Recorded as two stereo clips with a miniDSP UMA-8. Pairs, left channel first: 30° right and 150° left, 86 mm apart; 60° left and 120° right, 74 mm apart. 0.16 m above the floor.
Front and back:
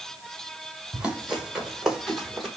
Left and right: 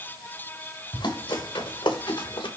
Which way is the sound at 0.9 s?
70° left.